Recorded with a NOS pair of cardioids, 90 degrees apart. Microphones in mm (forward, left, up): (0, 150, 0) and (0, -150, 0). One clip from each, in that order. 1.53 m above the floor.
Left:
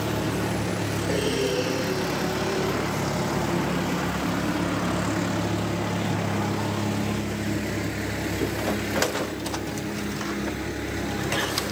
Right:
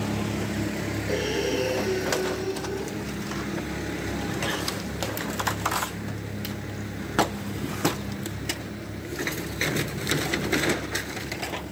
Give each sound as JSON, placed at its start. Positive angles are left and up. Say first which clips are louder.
{"t": 1.1, "sound": "breathing", "louder": "left 1 dB", "azimuth_deg": 5, "distance_m": 5.0}